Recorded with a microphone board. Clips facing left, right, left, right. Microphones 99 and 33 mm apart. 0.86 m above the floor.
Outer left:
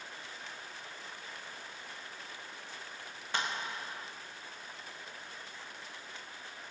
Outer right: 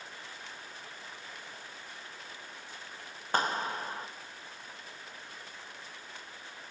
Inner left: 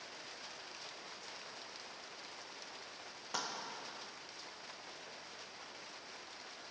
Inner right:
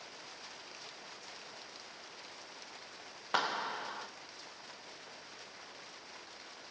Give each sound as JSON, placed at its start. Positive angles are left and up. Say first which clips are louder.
{"t": 3.3, "sound": "a clap", "louder": "outer right 6 dB, inner right 9 dB", "side_deg": -45, "distance_m": 0.8}